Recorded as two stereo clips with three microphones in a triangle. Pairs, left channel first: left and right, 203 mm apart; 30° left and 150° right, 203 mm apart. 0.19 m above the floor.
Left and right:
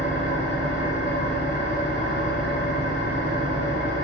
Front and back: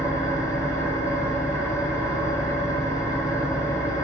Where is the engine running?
100° left, 2.5 m.